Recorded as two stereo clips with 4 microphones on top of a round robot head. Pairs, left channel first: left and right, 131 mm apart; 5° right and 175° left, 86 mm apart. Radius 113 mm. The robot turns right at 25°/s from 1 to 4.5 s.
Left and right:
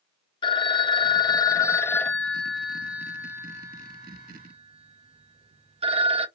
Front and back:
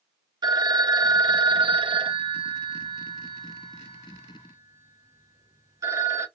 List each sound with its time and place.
0.4 s a phone ringing: 140° left, 0.6 m; by 6.3 s 130° right, 0.6 m